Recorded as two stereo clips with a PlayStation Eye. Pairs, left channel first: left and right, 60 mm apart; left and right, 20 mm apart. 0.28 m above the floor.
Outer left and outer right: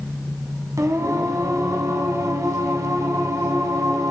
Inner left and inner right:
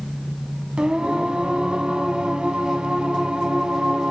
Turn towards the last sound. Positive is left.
turn(degrees=-60)  # may be behind; listen again after turning